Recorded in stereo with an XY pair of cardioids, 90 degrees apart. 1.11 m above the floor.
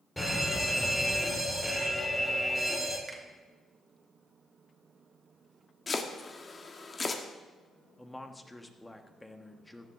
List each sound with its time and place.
0.2 s an alarm: 10° left, 4 m
3.1 s a finger snap: 35° right, 2.5 m
5.9 s chopping: 35° left, 1.5 m
8.0 s a man speaking: 10° left, 1.4 m